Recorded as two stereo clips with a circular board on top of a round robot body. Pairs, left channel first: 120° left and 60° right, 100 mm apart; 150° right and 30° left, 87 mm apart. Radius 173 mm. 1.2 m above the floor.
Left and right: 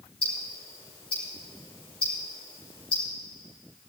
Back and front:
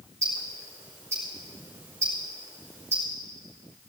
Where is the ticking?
90° left, 5 m.